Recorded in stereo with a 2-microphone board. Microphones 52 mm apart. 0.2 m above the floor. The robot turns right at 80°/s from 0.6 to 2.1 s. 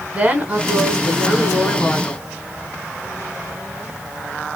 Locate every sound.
0.1 s a woman speaking: 45° right, 1.4 m; by 2.2 s 75° left, 1.4 m